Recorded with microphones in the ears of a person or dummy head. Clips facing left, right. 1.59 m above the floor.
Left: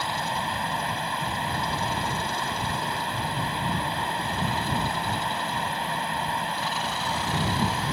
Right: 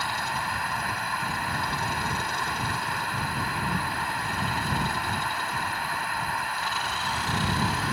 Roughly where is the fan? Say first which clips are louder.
Left 2 dB; left.